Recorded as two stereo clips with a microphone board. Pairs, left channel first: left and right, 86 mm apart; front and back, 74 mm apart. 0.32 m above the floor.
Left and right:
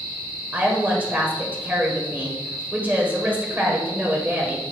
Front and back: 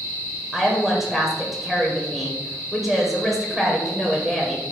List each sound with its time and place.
0.5 s a woman speaking: 100° right, 1.5 m